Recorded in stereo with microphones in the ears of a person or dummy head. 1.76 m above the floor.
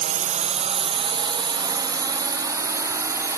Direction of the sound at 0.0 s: 45° right (ahead or behind).